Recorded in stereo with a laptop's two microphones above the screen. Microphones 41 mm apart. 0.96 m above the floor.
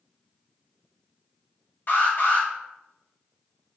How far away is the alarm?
About 1.2 m.